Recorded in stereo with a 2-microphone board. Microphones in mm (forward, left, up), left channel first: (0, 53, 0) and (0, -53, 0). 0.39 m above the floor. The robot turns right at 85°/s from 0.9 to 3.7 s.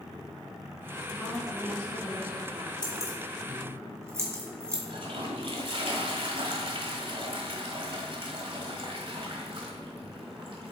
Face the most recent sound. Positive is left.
turn(degrees=-60)  # may be behind; listen again after turning